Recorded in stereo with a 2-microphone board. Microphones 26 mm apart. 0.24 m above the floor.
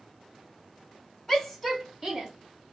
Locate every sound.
1.3 s a shout: 15° left (ahead or behind), 1.6 m; by 2.3 s 20° right (ahead or behind), 1.8 m